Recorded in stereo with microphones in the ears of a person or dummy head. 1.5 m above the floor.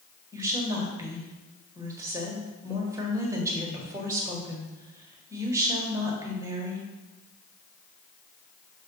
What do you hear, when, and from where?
0.3 s a woman speaking: 20° right (ahead or behind), 1.5 m